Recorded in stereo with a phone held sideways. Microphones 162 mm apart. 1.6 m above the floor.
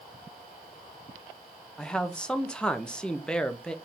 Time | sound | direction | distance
1.8 | a man speaking | 5° left (ahead or behind) | 0.6 m